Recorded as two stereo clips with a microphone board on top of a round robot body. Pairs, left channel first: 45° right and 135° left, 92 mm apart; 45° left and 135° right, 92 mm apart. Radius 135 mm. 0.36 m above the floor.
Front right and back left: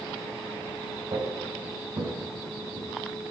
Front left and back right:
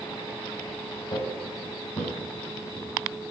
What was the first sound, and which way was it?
Footsteps, 85° left.